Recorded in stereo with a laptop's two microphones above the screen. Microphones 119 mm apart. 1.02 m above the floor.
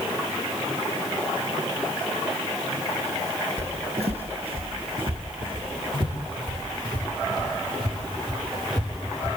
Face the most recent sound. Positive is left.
turn(degrees=-35)  # may be behind; listen again after turning